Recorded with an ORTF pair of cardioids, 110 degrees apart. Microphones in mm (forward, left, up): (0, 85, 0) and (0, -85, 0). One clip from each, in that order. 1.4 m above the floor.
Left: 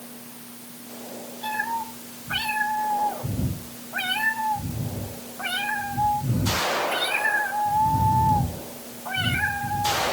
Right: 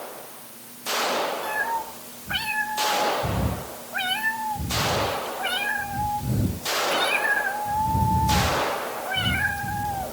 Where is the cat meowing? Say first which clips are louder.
Right 1 dB; 10° right, 4.5 m.